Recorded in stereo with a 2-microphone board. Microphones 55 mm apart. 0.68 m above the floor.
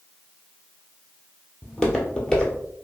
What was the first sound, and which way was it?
Footsteps, 15° left (ahead or behind).